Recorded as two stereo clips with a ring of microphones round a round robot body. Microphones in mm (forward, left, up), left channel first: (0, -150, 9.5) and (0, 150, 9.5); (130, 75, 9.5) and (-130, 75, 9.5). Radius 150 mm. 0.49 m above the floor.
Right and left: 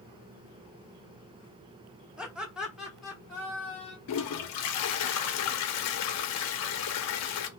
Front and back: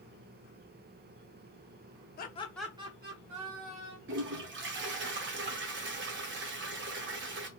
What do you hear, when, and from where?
2.2 s laughter: 5° left, 0.8 m; by 4.0 s straight behind, 1.5 m
4.1 s a toilet flushing: 130° right, 0.6 m